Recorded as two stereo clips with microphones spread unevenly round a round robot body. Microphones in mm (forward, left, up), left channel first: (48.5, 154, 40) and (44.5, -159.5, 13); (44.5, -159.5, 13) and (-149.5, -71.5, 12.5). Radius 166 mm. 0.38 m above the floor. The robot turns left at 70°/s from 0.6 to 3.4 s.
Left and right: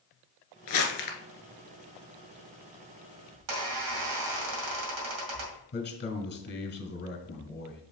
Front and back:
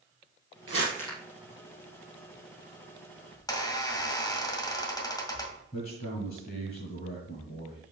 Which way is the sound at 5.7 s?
30° left.